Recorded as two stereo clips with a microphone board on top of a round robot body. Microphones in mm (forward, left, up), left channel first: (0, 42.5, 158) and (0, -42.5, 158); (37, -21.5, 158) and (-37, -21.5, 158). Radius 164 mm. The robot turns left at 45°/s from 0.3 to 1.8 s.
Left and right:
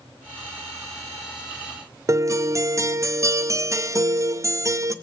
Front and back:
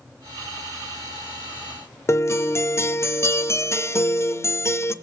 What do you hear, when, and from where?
2.1 s a guitar: 45° right, 0.6 m